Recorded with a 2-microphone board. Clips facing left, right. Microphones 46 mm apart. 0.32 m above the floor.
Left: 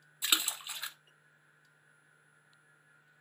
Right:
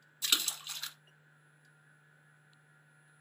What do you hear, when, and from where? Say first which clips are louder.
0.2 s a splash: left 1 dB; 20° left (ahead or behind), 0.6 m